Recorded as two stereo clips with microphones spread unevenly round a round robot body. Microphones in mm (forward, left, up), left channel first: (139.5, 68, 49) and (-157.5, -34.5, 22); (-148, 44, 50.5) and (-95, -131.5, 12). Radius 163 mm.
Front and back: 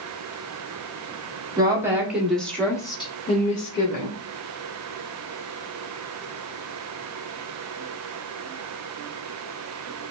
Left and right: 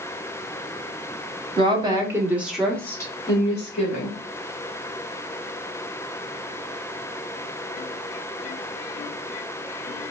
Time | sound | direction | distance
1.6 | a woman speaking | 95° right | 1.1 m